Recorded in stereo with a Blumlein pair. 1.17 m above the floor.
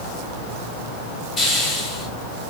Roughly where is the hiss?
Ahead.